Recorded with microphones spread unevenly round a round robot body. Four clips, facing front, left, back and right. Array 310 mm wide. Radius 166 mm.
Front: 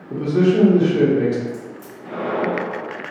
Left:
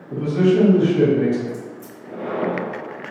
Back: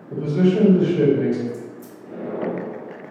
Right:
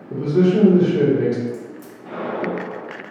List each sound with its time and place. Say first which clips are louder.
0.1 s a man speaking: right 1 dB, front 2 dB; 15° right, 1.4 m
1.5 s a crack: right 1 dB, front 1 dB; 45° right, 1.7 m